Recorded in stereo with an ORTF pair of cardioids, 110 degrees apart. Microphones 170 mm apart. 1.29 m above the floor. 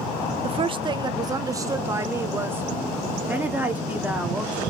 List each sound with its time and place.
0.4 s a woman speaking: 35° right, 0.7 m; by 4.6 s 10° right, 3 m